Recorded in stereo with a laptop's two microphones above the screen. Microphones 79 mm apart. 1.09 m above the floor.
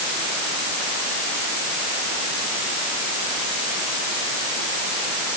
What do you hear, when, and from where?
Only background noise.